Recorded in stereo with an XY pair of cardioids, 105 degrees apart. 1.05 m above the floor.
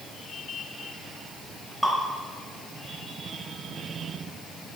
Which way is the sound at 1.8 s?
Straight ahead.